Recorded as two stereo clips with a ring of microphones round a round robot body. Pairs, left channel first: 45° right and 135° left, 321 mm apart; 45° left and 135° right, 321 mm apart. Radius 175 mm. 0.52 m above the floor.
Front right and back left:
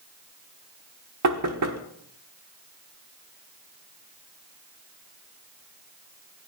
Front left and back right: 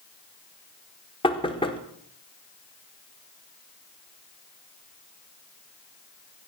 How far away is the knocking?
About 1.3 m.